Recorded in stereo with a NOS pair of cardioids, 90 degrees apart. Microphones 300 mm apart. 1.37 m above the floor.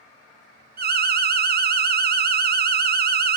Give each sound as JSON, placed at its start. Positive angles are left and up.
{"t": 0.8, "sound": "an alarm", "azimuth_deg": -35, "distance_m": 0.6}